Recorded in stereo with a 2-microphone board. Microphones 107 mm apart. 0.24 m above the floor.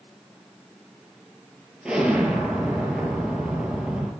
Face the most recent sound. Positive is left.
turn(degrees=-5)  # may be behind; listen again after turning